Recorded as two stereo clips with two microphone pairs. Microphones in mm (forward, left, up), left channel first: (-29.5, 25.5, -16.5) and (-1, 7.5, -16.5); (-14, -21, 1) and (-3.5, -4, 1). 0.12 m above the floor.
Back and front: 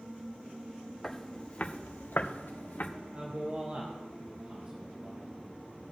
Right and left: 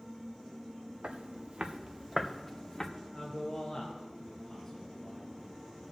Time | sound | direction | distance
1.0 | footsteps | 70° left | 1.6 m
3.1 | a man speaking | 65° right | 2.5 m